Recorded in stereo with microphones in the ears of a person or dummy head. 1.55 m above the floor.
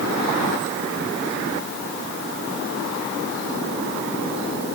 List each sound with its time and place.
Only background noise.